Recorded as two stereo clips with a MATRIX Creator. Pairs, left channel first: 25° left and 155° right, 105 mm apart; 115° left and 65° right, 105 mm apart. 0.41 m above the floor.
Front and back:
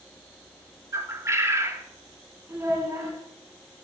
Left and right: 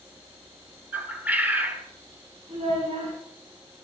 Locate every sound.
0.9 s a bird: 130° right, 0.9 m
2.5 s a child speaking: 90° right, 6 m